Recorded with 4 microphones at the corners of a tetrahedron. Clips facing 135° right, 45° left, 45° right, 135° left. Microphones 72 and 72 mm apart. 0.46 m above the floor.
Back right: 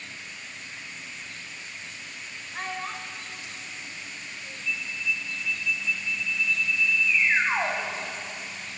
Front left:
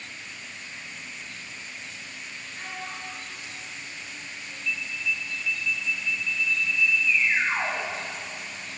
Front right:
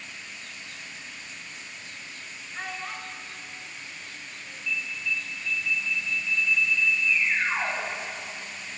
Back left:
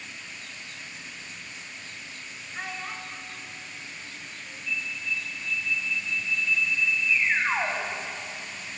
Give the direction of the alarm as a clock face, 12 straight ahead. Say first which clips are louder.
Even, front right 1 dB; 6 o'clock.